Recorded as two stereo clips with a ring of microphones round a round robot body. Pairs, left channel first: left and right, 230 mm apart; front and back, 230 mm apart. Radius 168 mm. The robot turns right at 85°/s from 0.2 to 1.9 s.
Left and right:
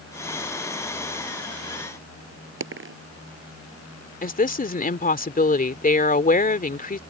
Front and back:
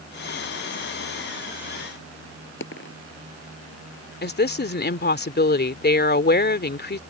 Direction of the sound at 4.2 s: 40° left.